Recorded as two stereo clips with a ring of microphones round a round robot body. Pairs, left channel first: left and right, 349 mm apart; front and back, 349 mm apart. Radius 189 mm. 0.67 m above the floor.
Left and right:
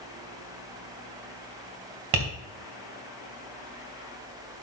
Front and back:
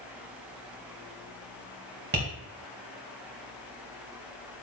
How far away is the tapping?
About 2.5 m.